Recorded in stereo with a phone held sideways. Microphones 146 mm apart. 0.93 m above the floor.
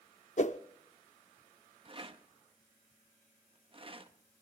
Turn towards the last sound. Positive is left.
turn(degrees=-40)  # may be behind; listen again after turning